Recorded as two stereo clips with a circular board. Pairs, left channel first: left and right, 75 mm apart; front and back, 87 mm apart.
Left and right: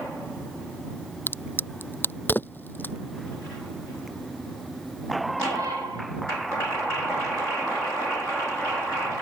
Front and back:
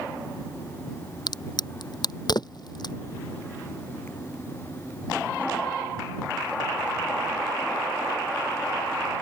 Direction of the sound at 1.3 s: 30° left.